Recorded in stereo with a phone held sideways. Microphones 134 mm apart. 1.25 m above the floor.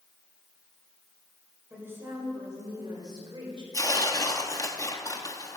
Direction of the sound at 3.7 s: 25° left (ahead or behind).